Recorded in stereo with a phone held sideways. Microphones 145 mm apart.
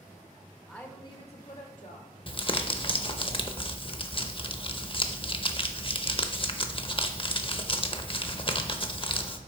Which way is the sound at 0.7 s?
5° left (ahead or behind).